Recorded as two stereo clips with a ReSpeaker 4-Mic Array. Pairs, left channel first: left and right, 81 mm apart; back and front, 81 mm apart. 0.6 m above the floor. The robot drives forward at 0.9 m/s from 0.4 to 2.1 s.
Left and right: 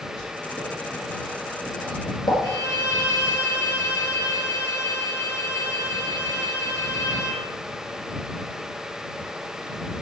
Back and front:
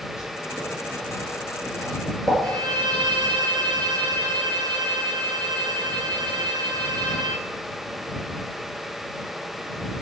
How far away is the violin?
About 3 m.